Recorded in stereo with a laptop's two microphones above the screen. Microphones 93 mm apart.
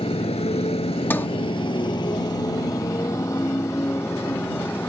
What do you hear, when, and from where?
0.0 s a motorcycle: 70° left (ahead or behind); by 4.9 s 20° left (ahead or behind)
1.1 s a sliding door: 20° left (ahead or behind)